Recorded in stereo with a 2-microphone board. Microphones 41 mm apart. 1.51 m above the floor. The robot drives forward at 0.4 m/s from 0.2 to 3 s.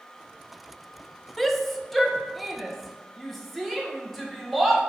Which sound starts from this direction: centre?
A shout, at 1.4 s.